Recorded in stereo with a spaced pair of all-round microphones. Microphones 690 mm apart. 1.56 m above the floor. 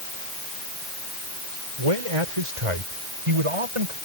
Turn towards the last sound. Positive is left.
turn(degrees=-55)  # may be behind; listen again after turning